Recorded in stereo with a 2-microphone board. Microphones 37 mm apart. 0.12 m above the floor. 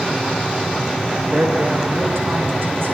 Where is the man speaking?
75° right (ahead or behind), 7.5 m.